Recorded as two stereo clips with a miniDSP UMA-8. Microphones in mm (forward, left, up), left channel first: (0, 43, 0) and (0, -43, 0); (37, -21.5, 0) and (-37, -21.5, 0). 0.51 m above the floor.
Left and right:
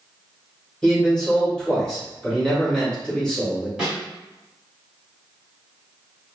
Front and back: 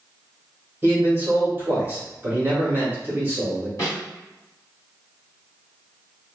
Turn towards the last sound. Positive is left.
turn(degrees=-10)